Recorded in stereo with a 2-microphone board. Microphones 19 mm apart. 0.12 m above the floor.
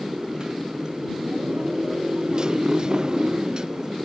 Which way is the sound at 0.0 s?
40° right (ahead or behind).